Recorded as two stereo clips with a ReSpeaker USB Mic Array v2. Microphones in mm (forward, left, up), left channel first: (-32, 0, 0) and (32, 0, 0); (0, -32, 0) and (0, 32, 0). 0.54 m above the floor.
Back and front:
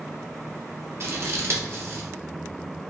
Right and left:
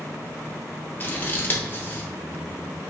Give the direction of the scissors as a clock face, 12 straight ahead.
1 o'clock.